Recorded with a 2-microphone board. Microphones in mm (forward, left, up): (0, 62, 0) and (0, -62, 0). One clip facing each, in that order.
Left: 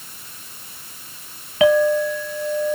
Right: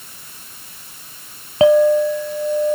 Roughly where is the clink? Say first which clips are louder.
Right 4 dB; right.